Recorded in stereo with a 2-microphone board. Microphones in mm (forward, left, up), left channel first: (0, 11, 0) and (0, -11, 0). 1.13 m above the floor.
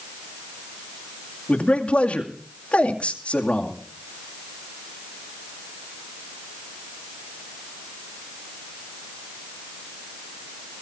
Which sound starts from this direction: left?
A man speaking, at 1.5 s.